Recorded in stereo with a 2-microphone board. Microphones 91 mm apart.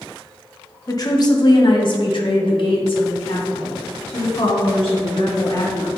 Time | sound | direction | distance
0.9 | a woman speaking | 40° left (ahead or behind) | 1.2 m